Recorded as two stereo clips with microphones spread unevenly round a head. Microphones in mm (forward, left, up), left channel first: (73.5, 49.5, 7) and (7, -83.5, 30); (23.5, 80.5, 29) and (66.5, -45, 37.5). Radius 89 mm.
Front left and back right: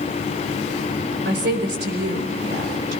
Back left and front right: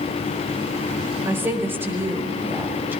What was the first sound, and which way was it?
A woman speaking, 145° right.